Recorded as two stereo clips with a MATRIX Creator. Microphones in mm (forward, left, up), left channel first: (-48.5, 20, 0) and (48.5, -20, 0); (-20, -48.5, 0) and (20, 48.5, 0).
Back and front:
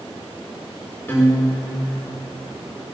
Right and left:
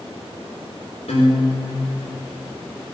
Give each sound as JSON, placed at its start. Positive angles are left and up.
{"t": 1.1, "sound": "a guitar", "azimuth_deg": -130, "distance_m": 6.5}